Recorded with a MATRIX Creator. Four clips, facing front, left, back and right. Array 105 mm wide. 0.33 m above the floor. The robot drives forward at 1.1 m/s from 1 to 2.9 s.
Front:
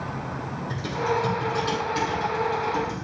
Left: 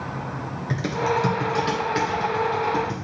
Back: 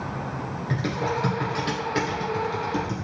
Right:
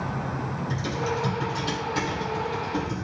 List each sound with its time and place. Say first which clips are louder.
0.7 s typing on a keyboard: left 7 dB, front 1 dB; 120° left, 2.5 m; by 3.1 s 145° left, 4 m